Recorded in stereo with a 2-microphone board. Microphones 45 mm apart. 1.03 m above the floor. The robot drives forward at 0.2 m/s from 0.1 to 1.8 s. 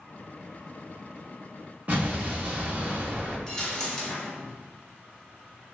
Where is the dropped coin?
15° left (ahead or behind), 0.5 m.